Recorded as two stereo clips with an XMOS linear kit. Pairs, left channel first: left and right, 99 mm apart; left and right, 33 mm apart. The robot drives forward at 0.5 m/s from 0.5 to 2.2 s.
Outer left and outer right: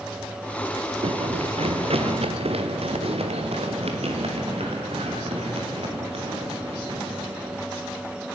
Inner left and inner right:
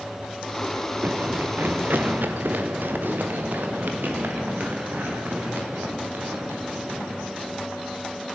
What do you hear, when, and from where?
1.0 s running footsteps: 80° right, 0.7 m